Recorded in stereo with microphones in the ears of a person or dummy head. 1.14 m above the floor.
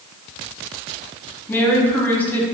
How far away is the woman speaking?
About 0.7 m.